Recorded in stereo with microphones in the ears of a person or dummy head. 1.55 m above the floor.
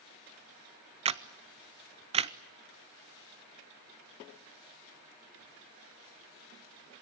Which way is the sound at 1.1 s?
30° right (ahead or behind).